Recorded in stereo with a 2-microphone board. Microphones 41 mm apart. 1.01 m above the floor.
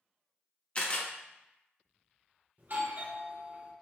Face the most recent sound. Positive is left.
turn(degrees=-55)  # may be behind; listen again after turning